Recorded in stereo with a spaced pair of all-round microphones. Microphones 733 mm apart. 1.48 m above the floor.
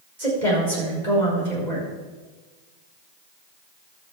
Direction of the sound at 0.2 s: 70° right (ahead or behind).